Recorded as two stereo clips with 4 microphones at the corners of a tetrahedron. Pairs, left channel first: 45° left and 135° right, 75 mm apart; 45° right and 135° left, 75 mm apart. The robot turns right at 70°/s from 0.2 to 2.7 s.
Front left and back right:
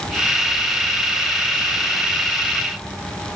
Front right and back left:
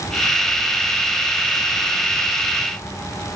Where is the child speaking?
No child speaking in this recording.